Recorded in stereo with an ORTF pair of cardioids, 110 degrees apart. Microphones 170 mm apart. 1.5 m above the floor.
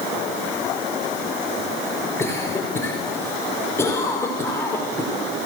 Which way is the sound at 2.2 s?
15° left.